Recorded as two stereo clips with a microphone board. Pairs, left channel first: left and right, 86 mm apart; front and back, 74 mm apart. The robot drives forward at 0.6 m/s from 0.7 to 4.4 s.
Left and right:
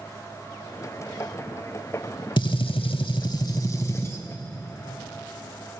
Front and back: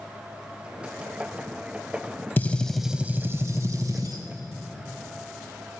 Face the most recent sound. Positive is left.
turn(degrees=155)